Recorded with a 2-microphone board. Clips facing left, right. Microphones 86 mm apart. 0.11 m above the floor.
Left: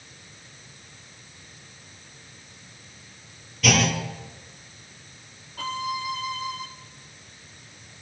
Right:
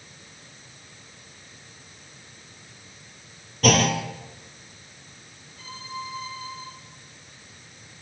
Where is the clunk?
40° right (ahead or behind), 3 m.